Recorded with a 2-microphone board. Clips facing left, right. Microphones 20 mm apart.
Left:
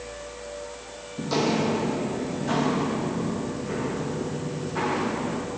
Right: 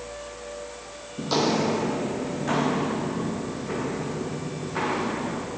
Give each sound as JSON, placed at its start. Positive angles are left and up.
{"t": 1.2, "sound": "footsteps", "side_deg": -30, "distance_m": 0.7}